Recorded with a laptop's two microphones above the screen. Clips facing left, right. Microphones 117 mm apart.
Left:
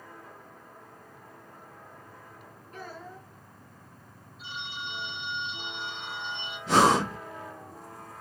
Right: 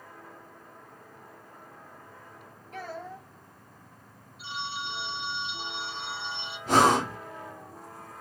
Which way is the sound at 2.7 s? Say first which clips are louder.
Right 4 dB; 80° right.